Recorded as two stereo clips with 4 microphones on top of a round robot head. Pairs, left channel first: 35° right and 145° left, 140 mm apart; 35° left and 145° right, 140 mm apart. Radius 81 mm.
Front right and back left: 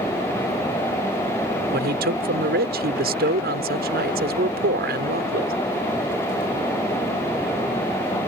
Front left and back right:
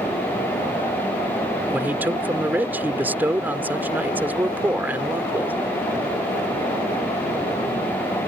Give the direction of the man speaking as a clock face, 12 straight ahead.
7 o'clock.